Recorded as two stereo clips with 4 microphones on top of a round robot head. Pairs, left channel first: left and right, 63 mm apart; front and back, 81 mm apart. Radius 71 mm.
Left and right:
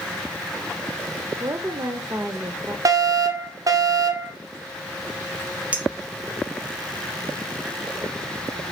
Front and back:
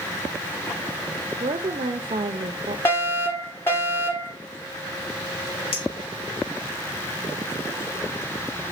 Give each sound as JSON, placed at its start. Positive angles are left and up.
{"t": 1.4, "sound": "a woman speaking", "azimuth_deg": -145, "distance_m": 0.7}
{"t": 2.9, "sound": "a fire alarm", "azimuth_deg": -65, "distance_m": 2.5}
{"t": 5.7, "sound": "a clink", "azimuth_deg": -25, "distance_m": 2.5}